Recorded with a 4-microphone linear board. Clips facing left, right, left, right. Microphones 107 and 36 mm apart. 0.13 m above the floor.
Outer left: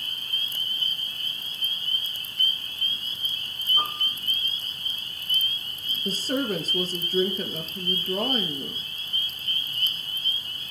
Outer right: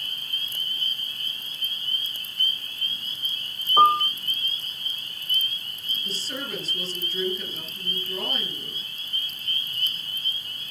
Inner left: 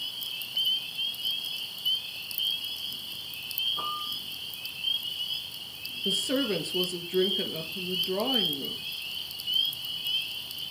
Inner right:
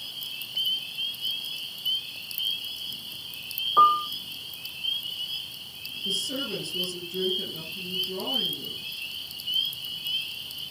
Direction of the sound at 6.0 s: 45° left (ahead or behind).